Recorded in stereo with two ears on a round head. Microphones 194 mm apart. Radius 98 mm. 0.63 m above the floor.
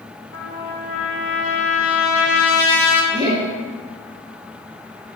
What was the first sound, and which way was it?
A trumpet, 65° left (ahead or behind).